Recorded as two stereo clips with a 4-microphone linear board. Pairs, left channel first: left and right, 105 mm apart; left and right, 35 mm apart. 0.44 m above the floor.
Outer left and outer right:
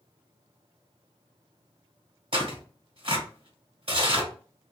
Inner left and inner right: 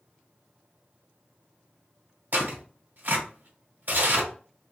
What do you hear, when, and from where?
2.3 s tearing paper: 60° right (ahead or behind), 1.6 m